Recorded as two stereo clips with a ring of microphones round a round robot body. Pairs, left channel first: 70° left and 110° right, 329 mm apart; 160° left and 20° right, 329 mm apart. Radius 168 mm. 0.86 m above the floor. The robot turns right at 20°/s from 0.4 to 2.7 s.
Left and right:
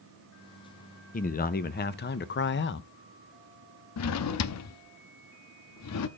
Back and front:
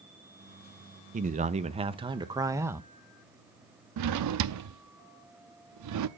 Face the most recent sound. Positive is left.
turn(degrees=20)